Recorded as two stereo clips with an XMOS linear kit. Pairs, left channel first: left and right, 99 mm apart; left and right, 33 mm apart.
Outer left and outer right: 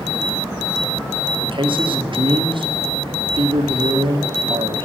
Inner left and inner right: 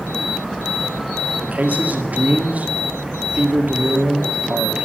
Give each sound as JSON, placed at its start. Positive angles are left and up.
{"t": 1.4, "sound": "a man speaking", "side_deg": -55, "distance_m": 1.7}